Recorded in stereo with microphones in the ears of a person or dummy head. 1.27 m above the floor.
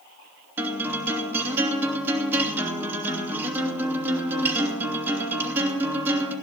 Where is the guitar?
10° right (ahead or behind), 3 m.